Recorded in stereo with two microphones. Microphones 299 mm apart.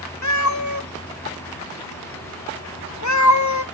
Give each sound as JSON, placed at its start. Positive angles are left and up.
{"t": 0.2, "sound": "a cat meowing", "side_deg": 65, "distance_m": 0.6}